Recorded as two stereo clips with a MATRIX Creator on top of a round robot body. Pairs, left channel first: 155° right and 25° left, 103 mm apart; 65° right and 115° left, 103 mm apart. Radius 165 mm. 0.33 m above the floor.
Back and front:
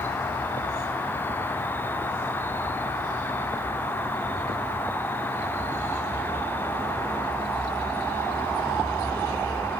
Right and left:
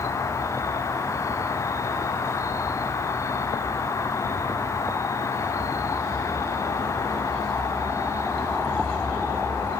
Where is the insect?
100° right, 1.3 m.